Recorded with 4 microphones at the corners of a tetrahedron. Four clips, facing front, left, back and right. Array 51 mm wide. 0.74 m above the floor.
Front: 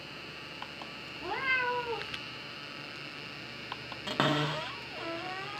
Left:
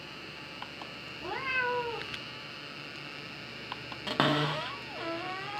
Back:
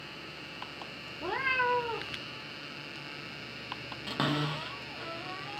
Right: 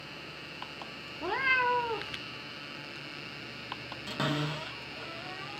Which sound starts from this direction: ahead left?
A cupboard door, at 4.1 s.